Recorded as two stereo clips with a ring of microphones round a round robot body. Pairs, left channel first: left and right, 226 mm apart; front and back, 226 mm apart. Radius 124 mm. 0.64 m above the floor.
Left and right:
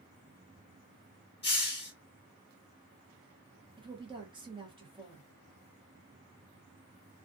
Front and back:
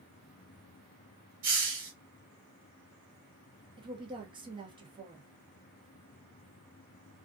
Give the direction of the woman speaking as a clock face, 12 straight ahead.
4 o'clock.